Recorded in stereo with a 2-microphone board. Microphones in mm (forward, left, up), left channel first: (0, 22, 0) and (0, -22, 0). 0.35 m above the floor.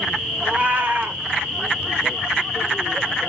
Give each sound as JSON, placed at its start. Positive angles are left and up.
{"t": 0.4, "sound": "a cat meowing", "side_deg": -40, "distance_m": 0.7}